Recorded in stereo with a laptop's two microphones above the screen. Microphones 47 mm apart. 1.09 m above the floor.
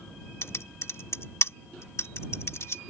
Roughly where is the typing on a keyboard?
Left.